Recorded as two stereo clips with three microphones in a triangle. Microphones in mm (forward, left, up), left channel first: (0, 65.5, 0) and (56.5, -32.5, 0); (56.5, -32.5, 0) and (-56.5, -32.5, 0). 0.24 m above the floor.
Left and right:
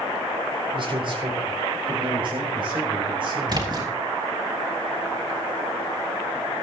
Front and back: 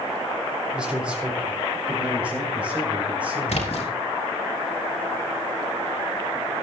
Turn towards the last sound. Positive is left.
turn(degrees=-10)